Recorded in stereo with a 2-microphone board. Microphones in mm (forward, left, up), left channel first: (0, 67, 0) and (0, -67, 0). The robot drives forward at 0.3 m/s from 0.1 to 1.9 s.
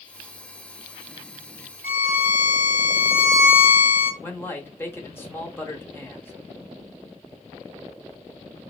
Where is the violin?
15° right (ahead or behind), 1.9 m.